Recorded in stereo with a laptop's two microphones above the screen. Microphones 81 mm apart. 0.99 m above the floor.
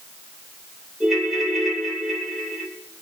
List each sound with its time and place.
1.0 s a ringtone: centre (ahead or behind), 3.5 m